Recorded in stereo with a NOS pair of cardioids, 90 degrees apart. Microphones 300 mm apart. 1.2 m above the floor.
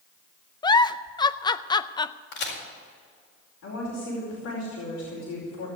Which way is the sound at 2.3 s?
65° left.